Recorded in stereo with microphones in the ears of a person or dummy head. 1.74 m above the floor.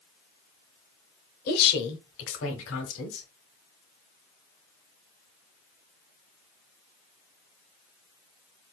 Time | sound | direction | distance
1.5 | a woman speaking | 65° left (ahead or behind) | 1.0 m